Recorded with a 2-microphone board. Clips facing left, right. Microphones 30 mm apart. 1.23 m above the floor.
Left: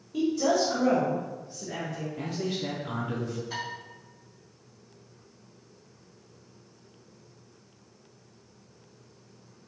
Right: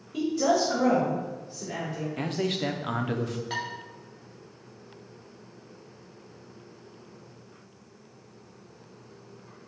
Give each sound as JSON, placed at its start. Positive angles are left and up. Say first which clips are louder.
{"t": 0.1, "sound": "a woman speaking", "louder": "right 1 dB", "side_deg": -5, "distance_m": 1.2}
{"t": 2.2, "sound": "a man speaking", "louder": "right 4 dB", "side_deg": -65, "distance_m": 0.6}
{"t": 3.5, "sound": "dishes clattering", "louder": "right 3 dB", "side_deg": -50, "distance_m": 1.8}